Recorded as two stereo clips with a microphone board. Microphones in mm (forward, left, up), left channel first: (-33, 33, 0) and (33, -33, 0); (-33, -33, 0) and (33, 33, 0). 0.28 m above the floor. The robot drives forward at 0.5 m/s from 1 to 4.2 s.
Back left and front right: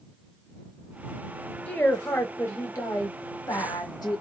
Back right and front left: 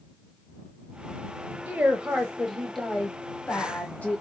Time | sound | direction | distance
1.7 | a woman speaking | 85° left | 1.1 m